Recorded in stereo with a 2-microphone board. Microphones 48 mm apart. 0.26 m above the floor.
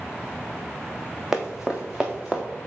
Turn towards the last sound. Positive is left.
turn(degrees=-10)  # may be behind; listen again after turning